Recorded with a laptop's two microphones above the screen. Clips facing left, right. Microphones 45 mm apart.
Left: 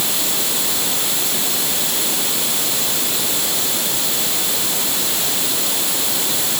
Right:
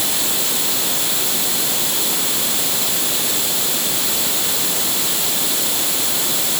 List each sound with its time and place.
Only background noise.